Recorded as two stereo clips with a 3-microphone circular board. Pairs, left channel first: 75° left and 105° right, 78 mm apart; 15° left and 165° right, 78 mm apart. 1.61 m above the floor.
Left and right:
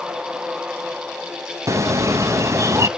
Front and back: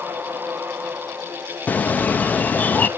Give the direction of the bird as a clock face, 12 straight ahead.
2 o'clock.